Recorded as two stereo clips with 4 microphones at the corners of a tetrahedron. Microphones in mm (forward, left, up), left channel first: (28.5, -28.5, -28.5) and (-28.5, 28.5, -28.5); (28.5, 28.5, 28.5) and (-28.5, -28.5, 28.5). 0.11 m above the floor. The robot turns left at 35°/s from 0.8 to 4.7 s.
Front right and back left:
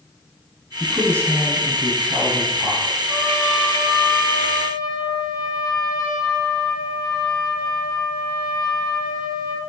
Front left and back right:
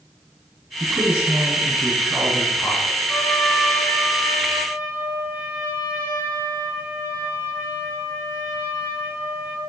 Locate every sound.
0.8 s a man speaking: 165° left, 1.3 m; by 3.0 s 90° left, 1.3 m
3.1 s a trumpet: 15° right, 1.1 m; by 9.6 s 70° right, 1.1 m